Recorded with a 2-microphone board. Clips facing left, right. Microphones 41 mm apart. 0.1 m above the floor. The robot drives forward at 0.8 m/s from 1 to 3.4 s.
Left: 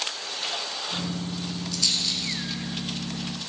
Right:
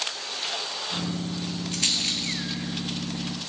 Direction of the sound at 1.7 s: 40° right (ahead or behind).